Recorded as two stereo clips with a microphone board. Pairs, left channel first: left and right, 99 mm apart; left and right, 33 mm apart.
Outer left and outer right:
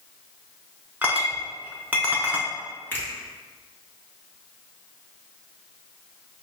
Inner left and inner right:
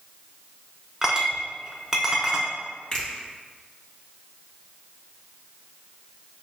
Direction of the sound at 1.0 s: 15° right (ahead or behind).